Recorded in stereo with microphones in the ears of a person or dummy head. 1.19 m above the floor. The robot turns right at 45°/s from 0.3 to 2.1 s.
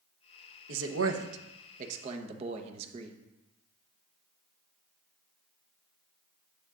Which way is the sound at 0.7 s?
100° right.